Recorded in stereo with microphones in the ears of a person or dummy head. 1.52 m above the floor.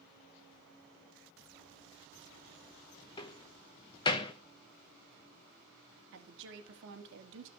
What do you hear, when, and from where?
3.2 s a door slam: 20° left (ahead or behind), 1.0 m
6.1 s a woman speaking: 75° right (ahead or behind), 2.5 m